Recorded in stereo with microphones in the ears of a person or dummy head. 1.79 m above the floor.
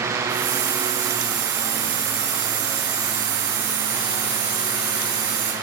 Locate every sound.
0.3 s a hiss: 55° right (ahead or behind), 2.5 m